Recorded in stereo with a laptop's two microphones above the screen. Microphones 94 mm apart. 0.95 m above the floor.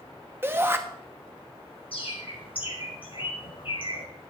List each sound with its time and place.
0.4 s a shout: 20° right (ahead or behind), 1.0 m
1.9 s a bird: 65° left (ahead or behind), 4.5 m